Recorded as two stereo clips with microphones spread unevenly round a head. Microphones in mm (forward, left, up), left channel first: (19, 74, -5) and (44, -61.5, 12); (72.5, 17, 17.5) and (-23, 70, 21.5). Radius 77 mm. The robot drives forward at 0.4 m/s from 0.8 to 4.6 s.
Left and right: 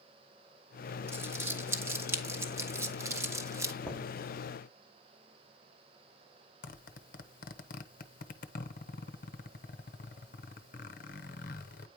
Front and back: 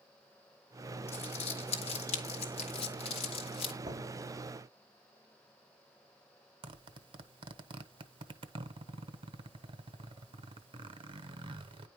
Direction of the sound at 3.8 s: 175° right.